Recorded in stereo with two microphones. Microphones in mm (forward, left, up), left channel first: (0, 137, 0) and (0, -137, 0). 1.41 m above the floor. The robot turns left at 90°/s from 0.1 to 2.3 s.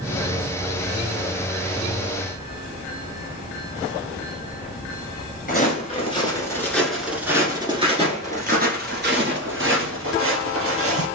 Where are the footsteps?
30° left (ahead or behind), 1.5 m; by 11.1 s 55° right (ahead or behind), 2.5 m.